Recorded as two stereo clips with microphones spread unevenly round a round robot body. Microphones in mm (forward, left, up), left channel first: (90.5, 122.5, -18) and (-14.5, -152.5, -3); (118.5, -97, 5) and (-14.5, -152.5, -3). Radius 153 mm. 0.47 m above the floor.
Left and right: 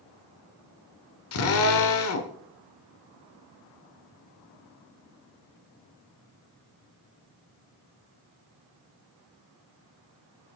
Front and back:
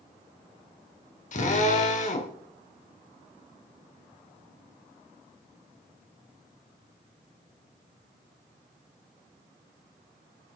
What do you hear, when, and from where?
1.3 s a drill: 50° left, 1.2 m